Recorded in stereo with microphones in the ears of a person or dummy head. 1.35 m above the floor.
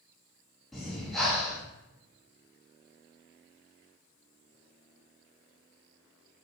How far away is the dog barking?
No dog barking in this recording.